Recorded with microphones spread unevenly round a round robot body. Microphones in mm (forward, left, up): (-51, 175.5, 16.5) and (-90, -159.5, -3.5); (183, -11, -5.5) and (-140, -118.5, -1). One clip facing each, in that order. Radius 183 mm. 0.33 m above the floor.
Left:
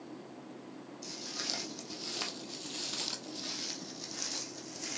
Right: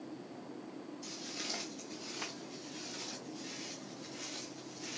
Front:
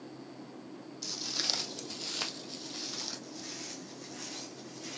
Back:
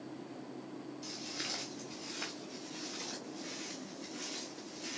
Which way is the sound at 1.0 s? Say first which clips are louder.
Even, front 1 dB; 5° left.